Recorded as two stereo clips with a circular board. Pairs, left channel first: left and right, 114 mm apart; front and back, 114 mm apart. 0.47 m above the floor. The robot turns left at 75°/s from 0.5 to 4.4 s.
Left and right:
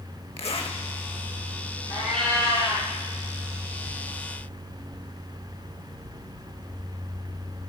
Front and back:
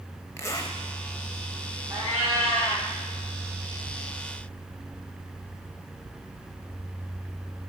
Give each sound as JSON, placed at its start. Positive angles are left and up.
{"t": 0.4, "sound": "a zipper", "azimuth_deg": 65, "distance_m": 0.7}
{"t": 1.9, "sound": "a cat meowing", "azimuth_deg": -170, "distance_m": 4.5}